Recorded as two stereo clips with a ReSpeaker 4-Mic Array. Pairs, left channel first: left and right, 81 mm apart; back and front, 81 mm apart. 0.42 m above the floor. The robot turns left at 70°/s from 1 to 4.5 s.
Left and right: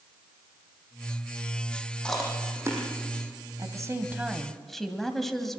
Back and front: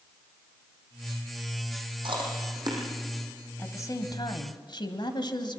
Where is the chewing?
10° left, 6.5 m; by 2.8 s 45° right, 6.5 m.